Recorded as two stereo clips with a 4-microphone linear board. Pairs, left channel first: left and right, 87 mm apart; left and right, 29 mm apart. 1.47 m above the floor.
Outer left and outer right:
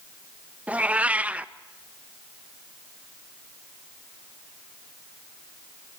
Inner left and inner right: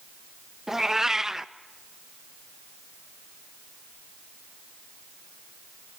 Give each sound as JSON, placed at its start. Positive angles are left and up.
{"t": 0.7, "sound": "a cat meowing", "side_deg": -15, "distance_m": 0.6}